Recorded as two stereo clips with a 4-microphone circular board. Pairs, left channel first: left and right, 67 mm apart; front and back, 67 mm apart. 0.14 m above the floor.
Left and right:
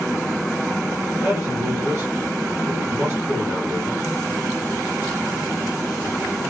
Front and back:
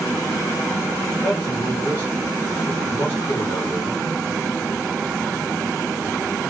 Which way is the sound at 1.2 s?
60° right.